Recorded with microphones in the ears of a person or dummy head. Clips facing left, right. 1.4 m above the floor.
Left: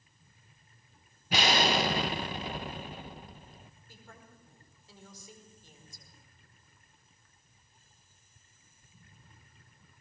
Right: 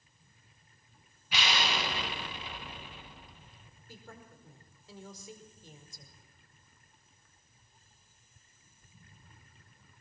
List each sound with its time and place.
1.3 s an explosion: 40° left (ahead or behind), 1.1 m
3.9 s a woman speaking: 65° right (ahead or behind), 5 m